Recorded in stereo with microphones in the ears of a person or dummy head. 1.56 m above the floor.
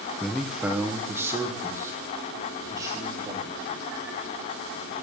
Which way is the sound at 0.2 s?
10° left (ahead or behind).